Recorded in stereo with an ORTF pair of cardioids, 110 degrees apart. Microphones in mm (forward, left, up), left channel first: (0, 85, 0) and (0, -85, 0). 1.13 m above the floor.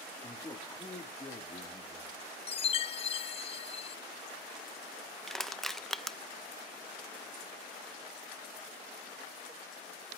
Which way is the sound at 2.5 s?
30° left.